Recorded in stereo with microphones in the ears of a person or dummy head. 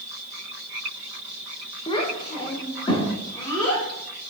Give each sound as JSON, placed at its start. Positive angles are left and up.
{"t": 1.9, "sound": "a child speaking", "side_deg": 20, "distance_m": 0.7}